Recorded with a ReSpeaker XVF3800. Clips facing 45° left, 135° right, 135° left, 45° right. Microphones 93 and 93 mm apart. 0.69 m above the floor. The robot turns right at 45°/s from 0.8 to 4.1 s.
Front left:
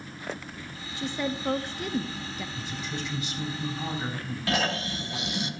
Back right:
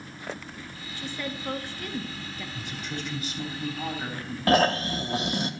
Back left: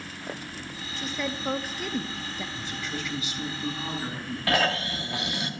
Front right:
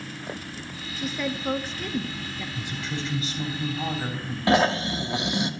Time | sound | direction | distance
1.0 | a woman speaking | 30° left | 0.7 m
2.5 | a woman speaking | 125° right | 3.5 m
4.5 | snoring | 105° right | 1.0 m